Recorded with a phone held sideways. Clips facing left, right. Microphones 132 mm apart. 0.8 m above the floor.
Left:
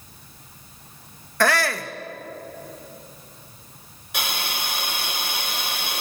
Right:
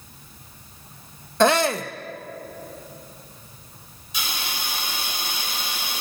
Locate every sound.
1.4 s a shout: 20° right (ahead or behind), 0.7 m
4.1 s a hiss: 65° left (ahead or behind), 4 m